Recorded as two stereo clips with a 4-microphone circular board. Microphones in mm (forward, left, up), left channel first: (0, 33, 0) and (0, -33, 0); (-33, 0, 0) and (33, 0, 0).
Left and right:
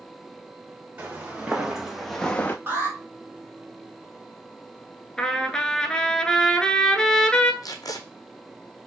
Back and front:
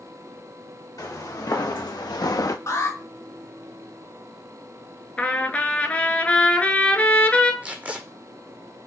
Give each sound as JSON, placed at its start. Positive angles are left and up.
{"t": 1.0, "sound": "footsteps", "azimuth_deg": -160, "distance_m": 1.7}
{"t": 2.7, "sound": "an alarm", "azimuth_deg": -150, "distance_m": 2.0}
{"t": 5.2, "sound": "a trumpet", "azimuth_deg": 150, "distance_m": 0.6}
{"t": 7.6, "sound": "tape being pulled", "azimuth_deg": 65, "distance_m": 0.7}